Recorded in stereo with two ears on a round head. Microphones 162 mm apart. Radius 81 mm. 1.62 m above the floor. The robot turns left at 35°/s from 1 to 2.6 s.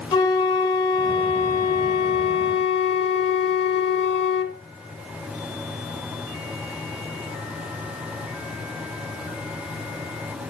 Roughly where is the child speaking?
I don't hear a child speaking.